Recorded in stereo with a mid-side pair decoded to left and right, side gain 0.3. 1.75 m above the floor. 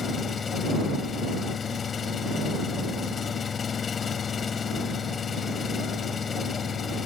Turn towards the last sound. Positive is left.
turn(degrees=65)